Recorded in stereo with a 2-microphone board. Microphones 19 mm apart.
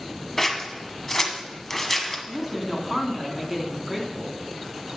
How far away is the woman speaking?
About 1.6 m.